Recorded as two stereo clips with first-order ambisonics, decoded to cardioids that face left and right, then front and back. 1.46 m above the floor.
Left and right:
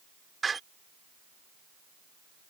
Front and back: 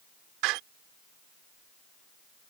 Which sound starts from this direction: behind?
A door slam, at 0.4 s.